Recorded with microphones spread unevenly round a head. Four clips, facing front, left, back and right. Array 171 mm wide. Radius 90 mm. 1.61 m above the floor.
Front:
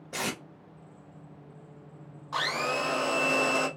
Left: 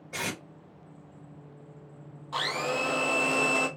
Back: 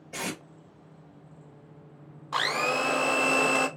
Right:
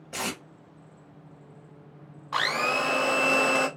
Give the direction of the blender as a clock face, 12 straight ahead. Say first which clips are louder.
Right 3 dB, back 2 dB; 5 o'clock.